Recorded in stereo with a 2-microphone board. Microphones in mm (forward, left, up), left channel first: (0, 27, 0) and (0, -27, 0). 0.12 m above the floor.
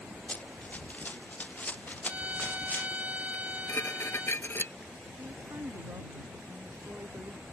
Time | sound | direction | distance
0.3 | running footsteps | 25° left (ahead or behind) | ?
2.0 | a violin | 30° right (ahead or behind) | ?
3.3 | dishes clattering | 45° left (ahead or behind) | ?
5.2 | a woman speaking | 55° right (ahead or behind) | ?